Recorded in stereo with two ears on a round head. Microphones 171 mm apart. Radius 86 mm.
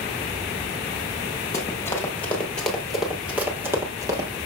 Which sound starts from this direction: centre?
Running footsteps, at 1.5 s.